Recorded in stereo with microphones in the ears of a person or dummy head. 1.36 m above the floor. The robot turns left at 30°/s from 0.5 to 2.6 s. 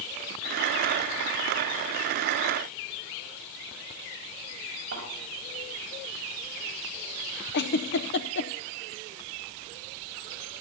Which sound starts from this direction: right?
A thud, at 4.9 s.